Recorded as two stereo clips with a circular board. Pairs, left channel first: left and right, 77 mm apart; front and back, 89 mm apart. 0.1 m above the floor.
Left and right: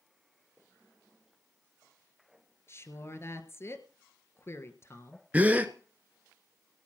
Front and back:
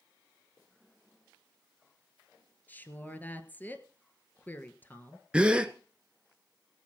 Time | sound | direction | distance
2.7 | a woman speaking | 60° left | 1.6 m
5.3 | a gasp | 125° right | 1.0 m